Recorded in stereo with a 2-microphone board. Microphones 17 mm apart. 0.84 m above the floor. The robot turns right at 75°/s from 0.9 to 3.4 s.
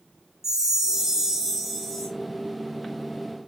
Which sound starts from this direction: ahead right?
A chime, at 0.4 s.